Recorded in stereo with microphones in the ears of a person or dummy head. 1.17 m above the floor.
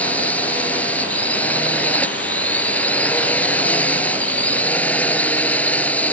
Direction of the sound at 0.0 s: 15° left (ahead or behind).